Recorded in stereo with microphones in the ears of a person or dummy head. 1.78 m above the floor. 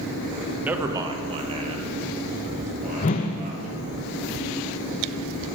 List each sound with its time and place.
0.6 s a man speaking: 10° right (ahead or behind), 0.9 m; by 3.8 s 45° right (ahead or behind), 4 m
3.0 s a whoosh: 25° left (ahead or behind), 0.5 m